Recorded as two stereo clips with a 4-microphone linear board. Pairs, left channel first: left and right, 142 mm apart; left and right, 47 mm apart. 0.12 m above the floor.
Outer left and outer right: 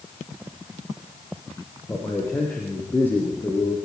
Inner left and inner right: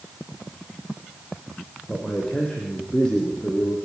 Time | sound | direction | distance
1.9 | a man speaking | 15° left (ahead or behind) | 4.5 m